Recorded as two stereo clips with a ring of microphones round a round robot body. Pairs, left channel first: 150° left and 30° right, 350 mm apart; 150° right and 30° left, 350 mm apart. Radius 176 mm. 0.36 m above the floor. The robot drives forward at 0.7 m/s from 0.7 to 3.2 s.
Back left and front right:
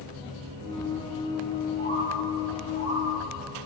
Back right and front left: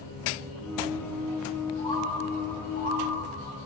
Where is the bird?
75° right, 2.5 m; by 3.0 s 105° right, 2.5 m.